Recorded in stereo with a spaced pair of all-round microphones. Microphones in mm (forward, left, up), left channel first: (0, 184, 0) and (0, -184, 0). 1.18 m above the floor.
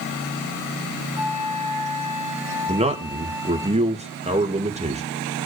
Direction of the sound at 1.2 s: 80° left.